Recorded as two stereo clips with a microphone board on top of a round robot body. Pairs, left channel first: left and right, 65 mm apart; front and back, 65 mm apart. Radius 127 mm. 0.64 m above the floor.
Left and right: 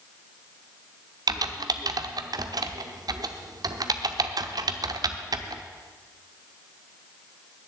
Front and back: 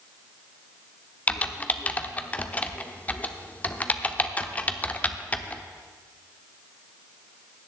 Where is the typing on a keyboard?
70° right, 0.7 m.